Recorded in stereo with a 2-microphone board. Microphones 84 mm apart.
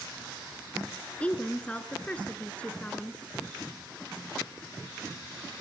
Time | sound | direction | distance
1.2 | a woman speaking | 15° left (ahead or behind) | 1.3 m